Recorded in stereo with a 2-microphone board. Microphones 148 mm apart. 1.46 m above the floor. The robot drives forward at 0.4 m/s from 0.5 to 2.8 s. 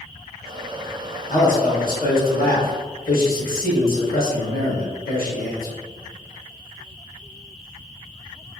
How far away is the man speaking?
About 0.9 m.